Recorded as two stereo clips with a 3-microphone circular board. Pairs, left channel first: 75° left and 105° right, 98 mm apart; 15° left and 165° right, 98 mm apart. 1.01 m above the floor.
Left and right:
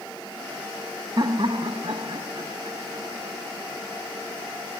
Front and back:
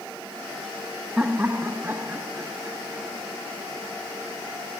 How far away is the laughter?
About 0.5 m.